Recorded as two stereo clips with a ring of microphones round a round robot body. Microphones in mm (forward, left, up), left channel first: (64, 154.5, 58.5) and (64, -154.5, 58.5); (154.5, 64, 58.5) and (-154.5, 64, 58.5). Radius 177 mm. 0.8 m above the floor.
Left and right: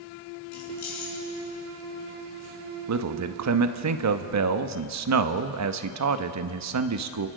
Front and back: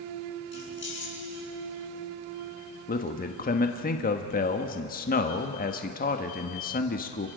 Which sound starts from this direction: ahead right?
A man speaking, at 2.9 s.